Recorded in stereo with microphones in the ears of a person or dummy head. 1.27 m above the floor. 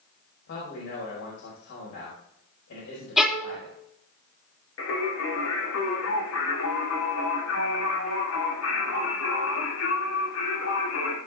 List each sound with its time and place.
0.5 s a man speaking: 65° left (ahead or behind), 5 m
3.2 s a violin: 5° right (ahead or behind), 1.4 m
4.8 s singing: 85° left, 3 m